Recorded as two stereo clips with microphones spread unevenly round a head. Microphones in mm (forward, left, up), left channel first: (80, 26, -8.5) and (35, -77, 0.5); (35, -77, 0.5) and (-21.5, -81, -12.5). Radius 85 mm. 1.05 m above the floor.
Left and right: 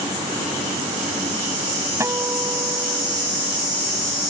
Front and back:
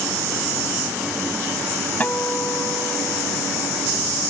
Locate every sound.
2.0 s a guitar: 50° right